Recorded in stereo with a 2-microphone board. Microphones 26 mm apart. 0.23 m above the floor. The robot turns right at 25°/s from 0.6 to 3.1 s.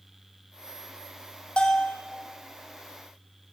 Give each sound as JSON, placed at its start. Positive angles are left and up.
{"t": 1.6, "sound": "a bell", "side_deg": 40, "distance_m": 1.9}